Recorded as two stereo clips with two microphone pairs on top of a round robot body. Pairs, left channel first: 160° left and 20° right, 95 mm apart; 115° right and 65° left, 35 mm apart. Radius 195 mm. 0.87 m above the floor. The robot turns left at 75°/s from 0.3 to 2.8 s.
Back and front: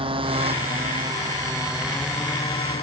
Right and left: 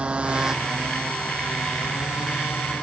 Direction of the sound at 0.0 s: 5° left.